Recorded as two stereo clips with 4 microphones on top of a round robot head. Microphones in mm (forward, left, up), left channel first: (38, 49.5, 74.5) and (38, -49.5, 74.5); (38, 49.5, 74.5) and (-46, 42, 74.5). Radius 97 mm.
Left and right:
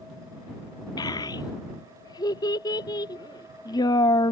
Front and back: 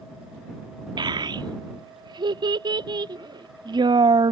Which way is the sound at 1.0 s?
150° left.